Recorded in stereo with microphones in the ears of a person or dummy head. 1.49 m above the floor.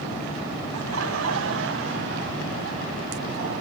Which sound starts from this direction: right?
Laughter, at 0.8 s.